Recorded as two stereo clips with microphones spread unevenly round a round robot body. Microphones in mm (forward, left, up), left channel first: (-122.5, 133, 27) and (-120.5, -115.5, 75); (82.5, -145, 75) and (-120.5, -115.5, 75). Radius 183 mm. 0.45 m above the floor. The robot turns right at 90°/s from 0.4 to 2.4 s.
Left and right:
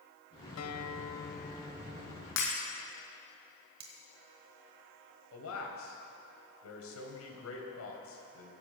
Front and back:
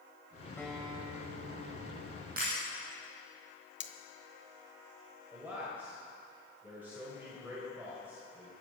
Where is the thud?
No thud in this recording.